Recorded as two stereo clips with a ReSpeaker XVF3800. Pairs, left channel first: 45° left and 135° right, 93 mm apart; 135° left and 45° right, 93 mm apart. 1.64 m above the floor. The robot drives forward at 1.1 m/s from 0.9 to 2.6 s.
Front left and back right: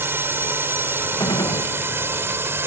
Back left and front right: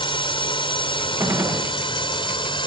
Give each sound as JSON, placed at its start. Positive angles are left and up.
{"t": 0.0, "sound": "a drone", "azimuth_deg": 160}
{"t": 1.2, "sound": "a gunshot", "azimuth_deg": 10}